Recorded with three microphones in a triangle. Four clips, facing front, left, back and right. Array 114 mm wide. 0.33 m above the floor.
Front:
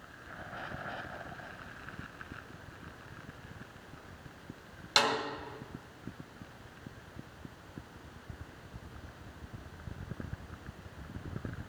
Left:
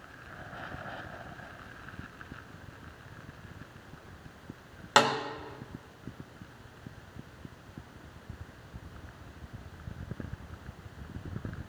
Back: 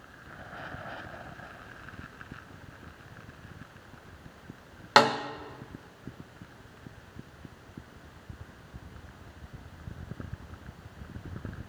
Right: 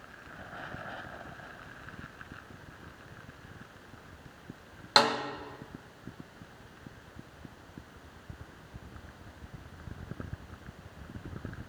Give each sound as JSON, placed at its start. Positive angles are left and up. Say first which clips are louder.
{"t": 5.0, "sound": "a snare drum", "louder": "left 1 dB, back 9 dB", "azimuth_deg": 170, "distance_m": 1.3}